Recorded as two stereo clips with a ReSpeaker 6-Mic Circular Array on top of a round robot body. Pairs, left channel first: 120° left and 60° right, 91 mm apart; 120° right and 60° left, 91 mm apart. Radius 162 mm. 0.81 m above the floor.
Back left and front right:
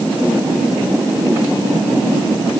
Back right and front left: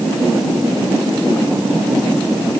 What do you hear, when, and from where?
Only background noise.